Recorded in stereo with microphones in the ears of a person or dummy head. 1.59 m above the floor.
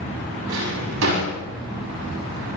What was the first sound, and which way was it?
A drawer, 75° right (ahead or behind).